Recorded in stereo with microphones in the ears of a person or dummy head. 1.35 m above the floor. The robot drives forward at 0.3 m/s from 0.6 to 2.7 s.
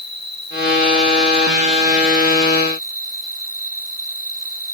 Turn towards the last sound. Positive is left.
turn(degrees=-55)  # may be behind; listen again after turning